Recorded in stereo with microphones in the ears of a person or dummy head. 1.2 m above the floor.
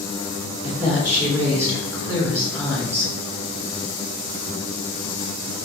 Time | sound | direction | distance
0.6 | a woman speaking | 10° right (ahead or behind) | 1.4 m